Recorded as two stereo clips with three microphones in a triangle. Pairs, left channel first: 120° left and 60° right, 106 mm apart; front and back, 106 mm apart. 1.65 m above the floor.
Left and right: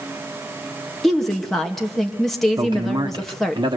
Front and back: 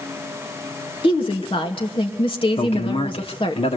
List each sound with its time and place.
1.0 s a woman speaking: 30° left, 2 m
2.6 s a man speaking: 15° right, 1.7 m